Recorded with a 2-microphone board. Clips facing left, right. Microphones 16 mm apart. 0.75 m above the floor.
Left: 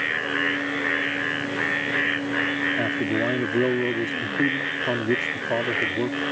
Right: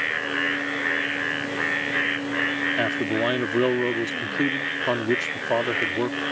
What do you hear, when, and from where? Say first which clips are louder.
2.8 s a man speaking: even; 40° right (ahead or behind)